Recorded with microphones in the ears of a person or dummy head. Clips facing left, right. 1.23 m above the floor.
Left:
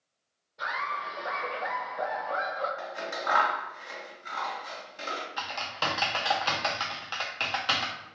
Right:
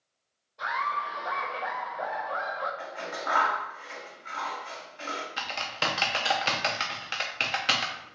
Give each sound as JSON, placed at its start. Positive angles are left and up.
{"t": 0.6, "sound": "laughter", "side_deg": 20, "distance_m": 1.1}
{"t": 2.8, "sound": "scissors", "side_deg": 55, "distance_m": 2.5}
{"t": 5.4, "sound": "typing on a keyboard", "side_deg": -25, "distance_m": 0.6}